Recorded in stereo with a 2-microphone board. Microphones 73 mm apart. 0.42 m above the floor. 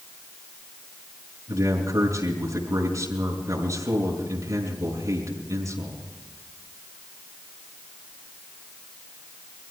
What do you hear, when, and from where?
1.5 s a man speaking: 50° right (ahead or behind), 5.5 m